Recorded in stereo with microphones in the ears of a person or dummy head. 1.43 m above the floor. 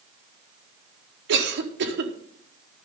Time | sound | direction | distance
1.3 | a cough | 60° right (ahead or behind) | 1.4 m